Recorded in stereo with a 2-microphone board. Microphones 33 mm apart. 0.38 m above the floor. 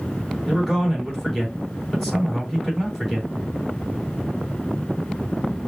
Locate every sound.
0.5 s a man speaking: centre (ahead or behind), 3.5 m